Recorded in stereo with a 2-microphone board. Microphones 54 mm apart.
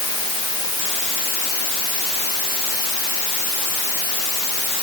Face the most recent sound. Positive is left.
No sound to turn to.